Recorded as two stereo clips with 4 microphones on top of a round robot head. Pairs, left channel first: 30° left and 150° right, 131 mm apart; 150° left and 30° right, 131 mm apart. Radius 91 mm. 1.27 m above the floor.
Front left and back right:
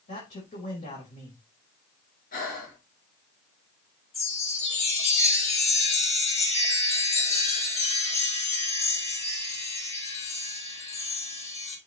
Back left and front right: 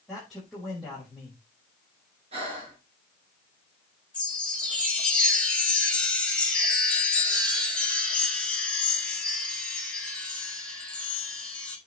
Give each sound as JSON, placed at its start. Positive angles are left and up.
{"t": 0.1, "sound": "a man speaking", "azimuth_deg": 60, "distance_m": 5.5}
{"t": 2.3, "sound": "breathing", "azimuth_deg": 15, "distance_m": 4.5}
{"t": 4.1, "sound": "a chime", "azimuth_deg": 70, "distance_m": 7.0}